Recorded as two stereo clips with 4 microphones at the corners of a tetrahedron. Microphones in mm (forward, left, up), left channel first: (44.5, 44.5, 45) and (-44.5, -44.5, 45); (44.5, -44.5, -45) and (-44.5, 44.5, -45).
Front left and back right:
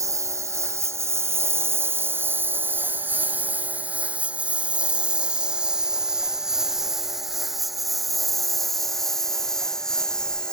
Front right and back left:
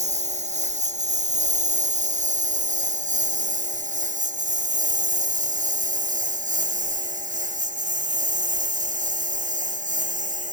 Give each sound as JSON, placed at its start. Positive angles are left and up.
{"t": 0.0, "sound": "a lawn mower", "azimuth_deg": 160}